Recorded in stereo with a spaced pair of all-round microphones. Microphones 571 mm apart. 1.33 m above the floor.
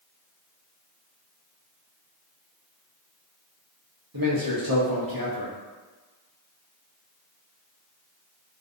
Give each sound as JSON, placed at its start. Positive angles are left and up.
{"t": 4.1, "sound": "a man speaking", "side_deg": -40, "distance_m": 0.8}